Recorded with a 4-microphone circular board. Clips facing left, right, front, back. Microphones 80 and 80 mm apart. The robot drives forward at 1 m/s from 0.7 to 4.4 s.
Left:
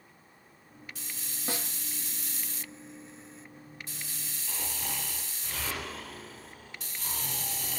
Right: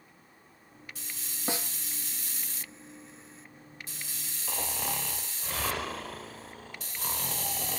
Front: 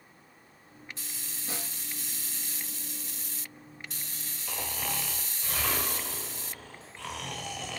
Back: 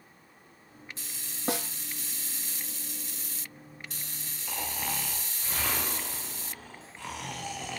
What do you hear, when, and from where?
1.5 s a snare drum: 160° right, 1.5 m
4.5 s snoring: 100° right, 3 m